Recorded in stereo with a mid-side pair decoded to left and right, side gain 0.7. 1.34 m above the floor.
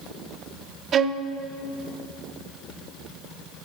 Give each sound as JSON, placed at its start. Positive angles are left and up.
{"t": 0.9, "sound": "a violin", "azimuth_deg": -40, "distance_m": 0.6}